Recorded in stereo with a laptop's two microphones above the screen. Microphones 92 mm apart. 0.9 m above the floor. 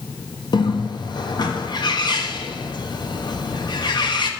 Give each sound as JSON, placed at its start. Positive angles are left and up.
{"t": 0.5, "sound": "a bird", "side_deg": 50, "distance_m": 1.1}